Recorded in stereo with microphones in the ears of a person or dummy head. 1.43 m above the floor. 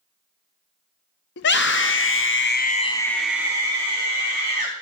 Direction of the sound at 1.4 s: 65° left (ahead or behind).